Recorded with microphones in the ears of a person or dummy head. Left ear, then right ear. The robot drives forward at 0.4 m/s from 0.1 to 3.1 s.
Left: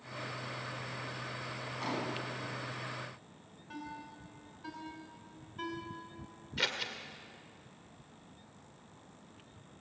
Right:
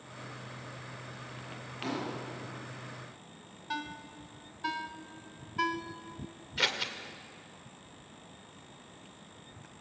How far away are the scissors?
About 1.9 m.